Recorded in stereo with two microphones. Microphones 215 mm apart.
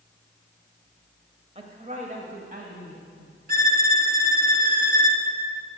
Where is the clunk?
No clunk in this recording.